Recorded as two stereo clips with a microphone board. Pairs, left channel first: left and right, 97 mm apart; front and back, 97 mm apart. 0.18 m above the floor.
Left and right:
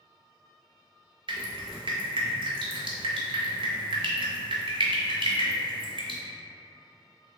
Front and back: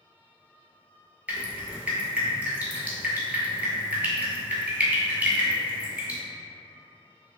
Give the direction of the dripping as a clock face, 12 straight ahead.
4 o'clock.